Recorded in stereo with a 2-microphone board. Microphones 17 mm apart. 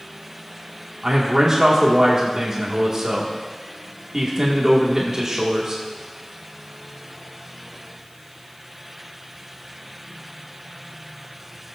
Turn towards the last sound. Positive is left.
turn(degrees=-30)  # may be behind; listen again after turning